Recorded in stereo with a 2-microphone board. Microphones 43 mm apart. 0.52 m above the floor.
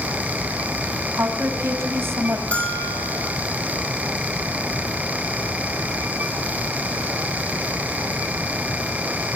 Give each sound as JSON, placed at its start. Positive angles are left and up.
{"t": 1.1, "sound": "a woman speaking", "side_deg": -65, "distance_m": 3.5}
{"t": 2.5, "sound": "a bell", "side_deg": 30, "distance_m": 4.5}